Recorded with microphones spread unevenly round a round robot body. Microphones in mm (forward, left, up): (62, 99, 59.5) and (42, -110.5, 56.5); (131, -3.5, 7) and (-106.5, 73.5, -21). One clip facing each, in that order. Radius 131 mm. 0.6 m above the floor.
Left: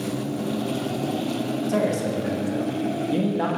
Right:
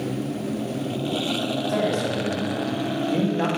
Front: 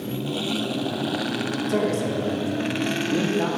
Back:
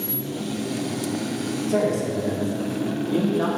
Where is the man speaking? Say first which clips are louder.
Left 1 dB, back 1 dB; 60° left, 1.8 m; by 3.5 s 160° right, 1.2 m.